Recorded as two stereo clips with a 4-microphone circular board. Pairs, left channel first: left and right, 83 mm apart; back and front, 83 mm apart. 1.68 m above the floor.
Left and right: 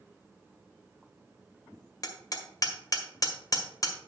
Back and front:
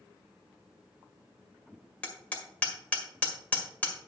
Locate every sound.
2.0 s hammering: 110° left, 1.8 m